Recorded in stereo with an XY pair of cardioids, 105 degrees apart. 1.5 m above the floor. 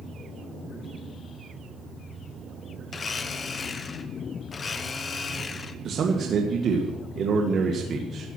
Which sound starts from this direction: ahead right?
A man speaking, at 5.8 s.